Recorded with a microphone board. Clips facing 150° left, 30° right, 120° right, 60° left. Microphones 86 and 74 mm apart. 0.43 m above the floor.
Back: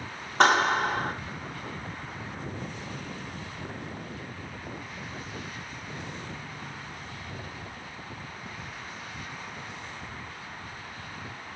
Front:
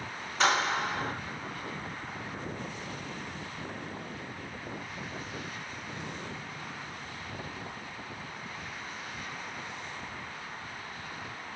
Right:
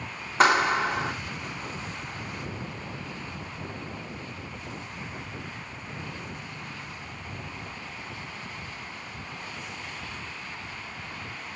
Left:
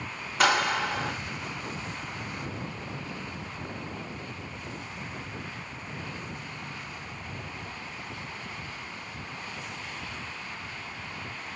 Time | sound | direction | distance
0.4 | a clap | 175° right | 4 m